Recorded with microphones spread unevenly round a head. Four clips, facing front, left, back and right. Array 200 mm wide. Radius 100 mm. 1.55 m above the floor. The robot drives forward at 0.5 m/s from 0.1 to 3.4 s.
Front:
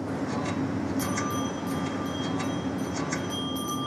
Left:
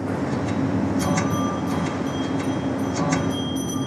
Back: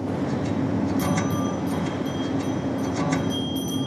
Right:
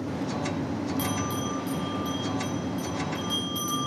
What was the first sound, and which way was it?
A bell, 135° right.